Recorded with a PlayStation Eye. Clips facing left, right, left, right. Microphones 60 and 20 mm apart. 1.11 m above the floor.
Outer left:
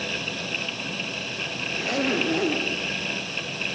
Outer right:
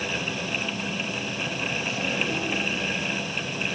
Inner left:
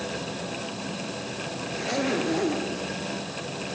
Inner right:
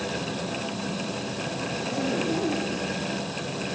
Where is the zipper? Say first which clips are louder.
Outer left 7 dB, inner left 3 dB; 65° left (ahead or behind), 3 m.